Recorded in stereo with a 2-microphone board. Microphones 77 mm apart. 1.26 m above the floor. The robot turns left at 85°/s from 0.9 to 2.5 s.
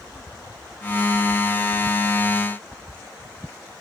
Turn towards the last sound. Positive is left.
No sound to turn to.